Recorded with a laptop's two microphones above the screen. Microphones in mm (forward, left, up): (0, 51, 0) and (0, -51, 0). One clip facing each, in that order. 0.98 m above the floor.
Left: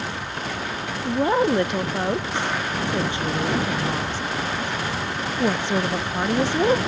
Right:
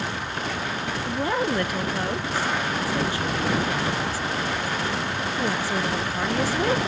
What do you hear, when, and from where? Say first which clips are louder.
1.1 s a woman speaking: left 6 dB; 20° left (ahead or behind)